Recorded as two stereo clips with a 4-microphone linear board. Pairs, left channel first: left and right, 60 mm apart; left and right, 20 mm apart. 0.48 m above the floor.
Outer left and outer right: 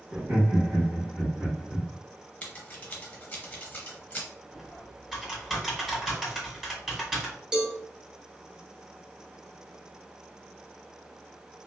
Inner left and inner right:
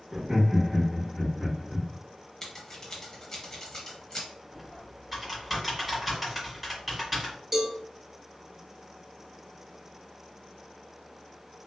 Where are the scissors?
20° left (ahead or behind), 0.7 m.